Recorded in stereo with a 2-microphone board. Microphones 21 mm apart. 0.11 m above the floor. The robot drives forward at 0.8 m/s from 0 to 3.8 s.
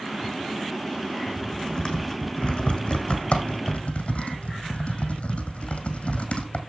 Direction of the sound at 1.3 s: 35° left (ahead or behind).